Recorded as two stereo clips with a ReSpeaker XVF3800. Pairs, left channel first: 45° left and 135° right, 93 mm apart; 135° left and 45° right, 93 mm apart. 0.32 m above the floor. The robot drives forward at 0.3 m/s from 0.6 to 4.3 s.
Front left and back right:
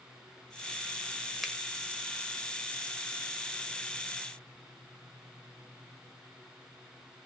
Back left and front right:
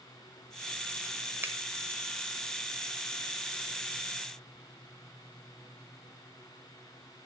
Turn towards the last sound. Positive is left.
turn(degrees=-155)